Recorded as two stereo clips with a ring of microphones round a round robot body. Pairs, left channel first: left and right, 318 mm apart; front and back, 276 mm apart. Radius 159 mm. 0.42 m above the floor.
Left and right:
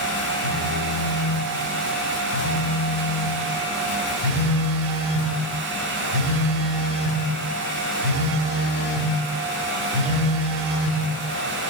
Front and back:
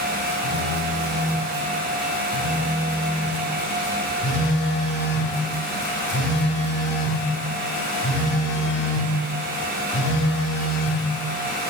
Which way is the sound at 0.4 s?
60° right.